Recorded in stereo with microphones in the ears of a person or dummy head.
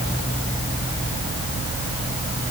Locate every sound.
Only background noise.